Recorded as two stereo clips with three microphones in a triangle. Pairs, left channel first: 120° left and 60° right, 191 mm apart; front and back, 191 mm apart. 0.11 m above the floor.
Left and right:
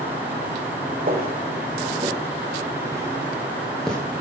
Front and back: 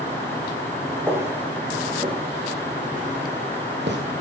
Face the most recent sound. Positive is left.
turn(degrees=-155)